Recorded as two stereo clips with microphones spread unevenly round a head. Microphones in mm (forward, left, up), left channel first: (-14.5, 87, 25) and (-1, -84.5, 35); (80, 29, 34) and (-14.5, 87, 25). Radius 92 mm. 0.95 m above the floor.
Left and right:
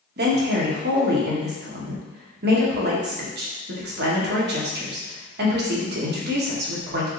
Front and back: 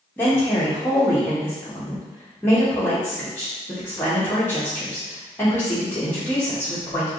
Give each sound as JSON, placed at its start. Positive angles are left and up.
{"t": 0.2, "sound": "a woman speaking", "azimuth_deg": -110, "distance_m": 1.0}